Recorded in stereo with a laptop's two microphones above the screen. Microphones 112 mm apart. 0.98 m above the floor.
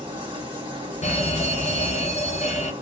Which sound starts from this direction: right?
A machine running, at 0.0 s.